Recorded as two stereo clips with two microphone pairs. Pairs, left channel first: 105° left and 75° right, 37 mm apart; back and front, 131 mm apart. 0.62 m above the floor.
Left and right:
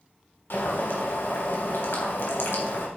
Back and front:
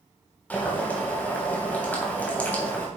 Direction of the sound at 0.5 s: 100° left.